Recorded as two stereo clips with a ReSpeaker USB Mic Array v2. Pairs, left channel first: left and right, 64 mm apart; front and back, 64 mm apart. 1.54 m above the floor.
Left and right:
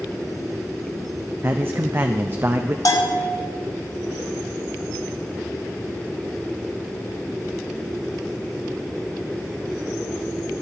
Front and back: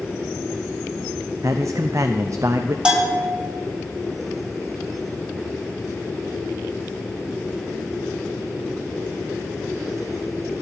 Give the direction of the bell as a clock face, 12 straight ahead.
8 o'clock.